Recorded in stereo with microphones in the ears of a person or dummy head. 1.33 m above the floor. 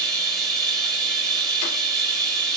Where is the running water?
15° right (ahead or behind), 7 m.